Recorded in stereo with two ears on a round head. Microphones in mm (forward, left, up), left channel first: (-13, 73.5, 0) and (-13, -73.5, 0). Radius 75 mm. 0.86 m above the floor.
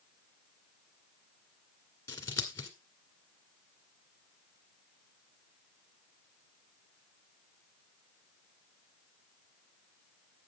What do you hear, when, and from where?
2.1 s scissors: 15° left (ahead or behind), 2 m